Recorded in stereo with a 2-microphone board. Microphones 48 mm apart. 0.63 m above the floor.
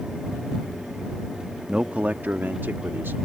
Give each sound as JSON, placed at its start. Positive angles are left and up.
{"t": 1.7, "sound": "a man speaking", "side_deg": -20}